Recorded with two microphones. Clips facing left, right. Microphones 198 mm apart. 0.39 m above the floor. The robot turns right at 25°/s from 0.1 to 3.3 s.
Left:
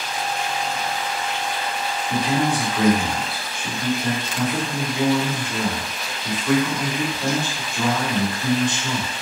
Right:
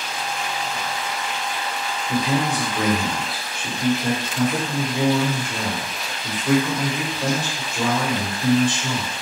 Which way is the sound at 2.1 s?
85° right.